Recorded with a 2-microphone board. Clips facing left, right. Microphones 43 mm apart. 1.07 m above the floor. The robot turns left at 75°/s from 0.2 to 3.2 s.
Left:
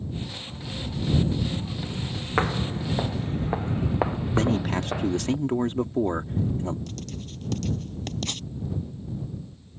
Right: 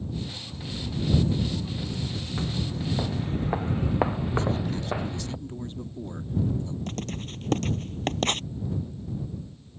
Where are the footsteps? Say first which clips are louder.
Left 7 dB; 60° left (ahead or behind); by 5.3 s 5° right (ahead or behind).